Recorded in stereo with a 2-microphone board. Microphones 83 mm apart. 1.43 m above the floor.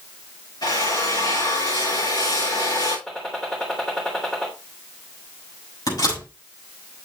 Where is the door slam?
55° left (ahead or behind), 6.5 m.